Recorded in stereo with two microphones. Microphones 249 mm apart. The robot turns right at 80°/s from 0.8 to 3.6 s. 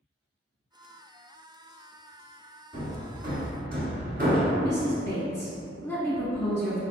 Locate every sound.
2.7 s hammering: 30° right (ahead or behind), 1.2 m; by 4.5 s 40° right (ahead or behind), 1.2 m
4.6 s a woman speaking: 10° left (ahead or behind), 1.1 m